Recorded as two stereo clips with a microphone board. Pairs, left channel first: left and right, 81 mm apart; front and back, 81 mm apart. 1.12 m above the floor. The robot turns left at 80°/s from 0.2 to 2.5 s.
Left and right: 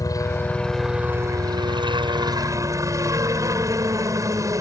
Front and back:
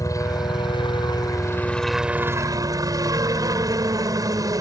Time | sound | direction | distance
0.0 | a helicopter | 45° left | ?